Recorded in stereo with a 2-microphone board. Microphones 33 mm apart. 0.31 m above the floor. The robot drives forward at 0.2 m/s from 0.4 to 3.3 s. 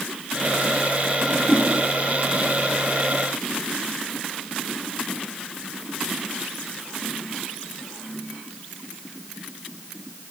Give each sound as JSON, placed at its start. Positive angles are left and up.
{"t": 1.2, "sound": "a whoosh", "side_deg": 0, "distance_m": 2.0}